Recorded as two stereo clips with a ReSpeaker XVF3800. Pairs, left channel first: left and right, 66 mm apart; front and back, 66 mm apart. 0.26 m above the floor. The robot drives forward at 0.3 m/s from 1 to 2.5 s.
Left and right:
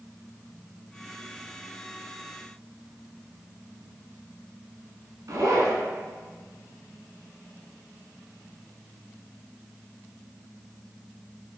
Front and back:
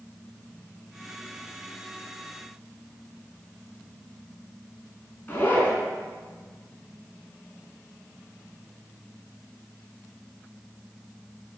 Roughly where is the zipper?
Ahead right.